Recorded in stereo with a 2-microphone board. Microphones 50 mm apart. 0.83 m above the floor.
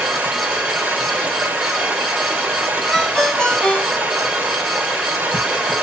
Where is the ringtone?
10° left (ahead or behind), 3 m.